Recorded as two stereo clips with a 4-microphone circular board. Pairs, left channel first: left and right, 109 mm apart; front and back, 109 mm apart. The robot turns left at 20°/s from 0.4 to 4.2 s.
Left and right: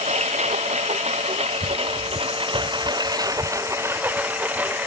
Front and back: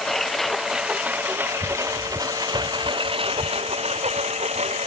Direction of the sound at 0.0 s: 90° right.